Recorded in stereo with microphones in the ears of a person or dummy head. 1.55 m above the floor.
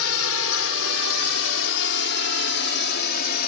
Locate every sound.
0.0 s a drone: 75° left (ahead or behind); by 3.5 s 45° left (ahead or behind)